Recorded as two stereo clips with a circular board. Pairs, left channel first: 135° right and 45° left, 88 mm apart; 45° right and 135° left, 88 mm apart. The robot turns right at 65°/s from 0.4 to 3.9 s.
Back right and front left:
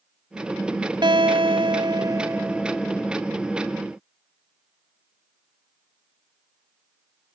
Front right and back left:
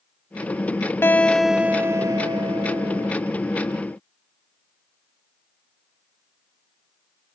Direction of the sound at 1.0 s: 20° left.